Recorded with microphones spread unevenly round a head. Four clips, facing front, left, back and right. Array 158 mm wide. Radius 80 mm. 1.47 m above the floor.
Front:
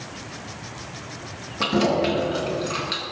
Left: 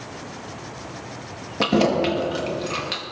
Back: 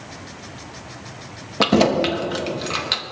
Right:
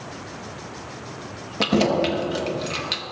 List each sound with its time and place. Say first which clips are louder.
1.6 s keys jangling: left 1 dB, back 4 dB; straight behind, 1.2 m